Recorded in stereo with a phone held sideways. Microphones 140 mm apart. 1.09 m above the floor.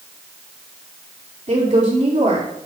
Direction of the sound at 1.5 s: 60° right (ahead or behind).